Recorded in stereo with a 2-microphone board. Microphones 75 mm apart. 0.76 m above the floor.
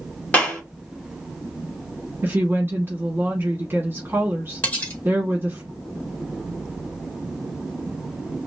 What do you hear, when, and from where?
0.3 s a clap: 15° left (ahead or behind), 2 m
2.2 s a woman speaking: 30° right (ahead or behind), 1.6 m
4.6 s cutlery clinking: 20° left (ahead or behind), 1.7 m